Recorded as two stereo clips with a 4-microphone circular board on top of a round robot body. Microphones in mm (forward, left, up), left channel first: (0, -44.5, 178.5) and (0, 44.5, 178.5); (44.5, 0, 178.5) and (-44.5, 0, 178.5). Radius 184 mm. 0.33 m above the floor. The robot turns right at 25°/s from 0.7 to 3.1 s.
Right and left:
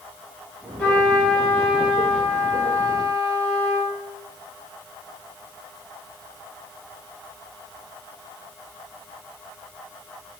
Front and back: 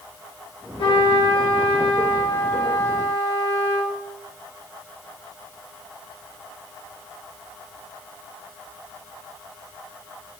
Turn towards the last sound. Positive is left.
turn(degrees=45)